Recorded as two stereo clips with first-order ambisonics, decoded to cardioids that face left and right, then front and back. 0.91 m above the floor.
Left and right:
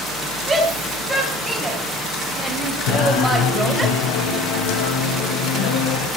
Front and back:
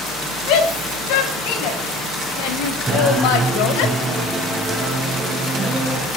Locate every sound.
0.5 s a shout: 10° right, 6 m; by 3.9 s 5° right, 3.5 m
2.9 s singing: 95° left, 2 m